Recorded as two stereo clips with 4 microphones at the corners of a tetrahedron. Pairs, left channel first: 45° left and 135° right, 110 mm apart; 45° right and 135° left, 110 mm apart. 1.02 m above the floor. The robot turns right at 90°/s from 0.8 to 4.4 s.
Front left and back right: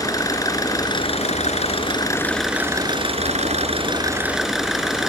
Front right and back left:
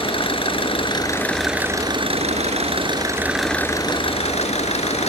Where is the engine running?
10° right; by 5.1 s 50° right.